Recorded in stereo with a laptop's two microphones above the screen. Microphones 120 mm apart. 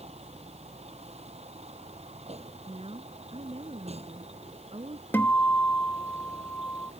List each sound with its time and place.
0.0 s a vehicle: 60° right (ahead or behind)
2.7 s a woman speaking: 55° right (ahead or behind)
5.1 s a guitar: 15° left (ahead or behind)